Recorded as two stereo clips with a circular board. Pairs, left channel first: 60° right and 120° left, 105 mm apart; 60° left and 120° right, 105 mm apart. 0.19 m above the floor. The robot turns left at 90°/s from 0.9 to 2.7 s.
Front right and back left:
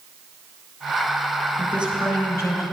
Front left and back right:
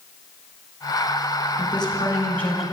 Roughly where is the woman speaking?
Ahead left.